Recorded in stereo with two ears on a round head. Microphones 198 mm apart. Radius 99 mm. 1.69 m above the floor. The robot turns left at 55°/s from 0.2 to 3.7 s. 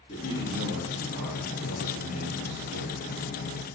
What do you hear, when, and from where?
0.1 s a man speaking: 25° left, 4.5 m; by 3.3 s 145° right, 4.5 m